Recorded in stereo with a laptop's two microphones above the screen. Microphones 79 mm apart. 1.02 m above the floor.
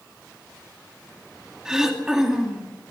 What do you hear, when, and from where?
1.6 s throat clearing: 5° right (ahead or behind), 2.5 m